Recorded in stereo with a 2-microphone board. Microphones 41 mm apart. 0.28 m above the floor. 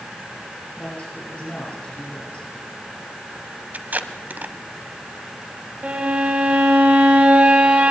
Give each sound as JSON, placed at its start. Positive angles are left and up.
{"t": 0.8, "sound": "a woman speaking", "side_deg": 30, "distance_m": 7.0}
{"t": 3.7, "sound": "tape being pulled", "side_deg": -40, "distance_m": 1.1}
{"t": 5.8, "sound": "a violin", "side_deg": -35, "distance_m": 2.5}